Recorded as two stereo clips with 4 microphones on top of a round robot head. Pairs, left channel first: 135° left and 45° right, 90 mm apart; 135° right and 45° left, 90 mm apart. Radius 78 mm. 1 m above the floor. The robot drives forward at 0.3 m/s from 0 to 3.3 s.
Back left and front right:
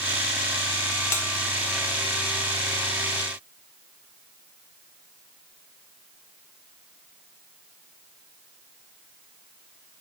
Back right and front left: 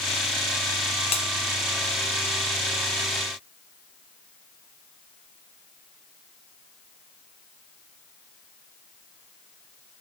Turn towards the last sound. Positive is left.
turn(degrees=-175)